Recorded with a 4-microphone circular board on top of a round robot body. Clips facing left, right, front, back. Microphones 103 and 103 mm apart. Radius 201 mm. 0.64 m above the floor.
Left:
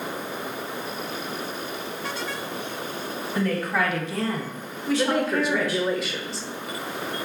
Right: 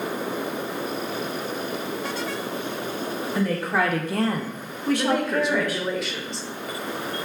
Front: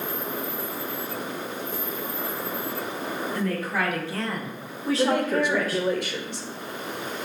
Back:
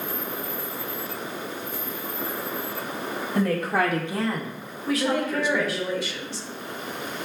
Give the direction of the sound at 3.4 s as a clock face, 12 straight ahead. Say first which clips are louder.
Right 1 dB, back 6 dB; 6 o'clock.